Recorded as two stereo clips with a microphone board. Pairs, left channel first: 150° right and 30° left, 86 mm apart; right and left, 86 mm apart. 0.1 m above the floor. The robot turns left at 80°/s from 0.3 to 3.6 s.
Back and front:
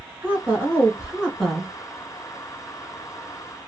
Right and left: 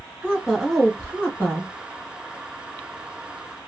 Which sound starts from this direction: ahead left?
A woman speaking, at 0.2 s.